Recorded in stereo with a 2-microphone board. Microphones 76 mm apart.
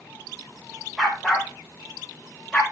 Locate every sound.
1.0 s a dog barking: centre (ahead or behind), 6 m; by 2.6 s 10° left (ahead or behind), 7 m